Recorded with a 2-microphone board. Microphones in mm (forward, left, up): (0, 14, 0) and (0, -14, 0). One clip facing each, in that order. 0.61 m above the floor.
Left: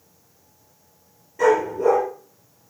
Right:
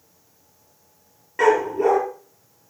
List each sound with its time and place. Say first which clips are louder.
1.4 s a dog barking: even; 70° right (ahead or behind), 5 m